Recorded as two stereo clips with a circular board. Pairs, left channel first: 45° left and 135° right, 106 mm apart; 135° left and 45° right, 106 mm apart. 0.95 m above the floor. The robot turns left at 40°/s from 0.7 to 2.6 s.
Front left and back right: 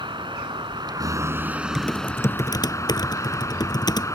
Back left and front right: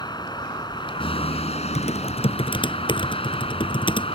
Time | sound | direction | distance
0.0 | a vehicle | straight behind | ?
1.8 | typing on a keyboard | 130° left | ?